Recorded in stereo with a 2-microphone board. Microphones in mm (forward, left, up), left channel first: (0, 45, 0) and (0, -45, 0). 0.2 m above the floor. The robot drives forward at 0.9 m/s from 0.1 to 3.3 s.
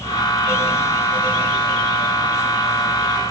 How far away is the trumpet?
I don't hear a trumpet.